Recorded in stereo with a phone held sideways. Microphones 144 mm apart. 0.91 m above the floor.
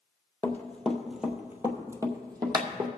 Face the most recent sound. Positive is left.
turn(degrees=-30)  # may be behind; listen again after turning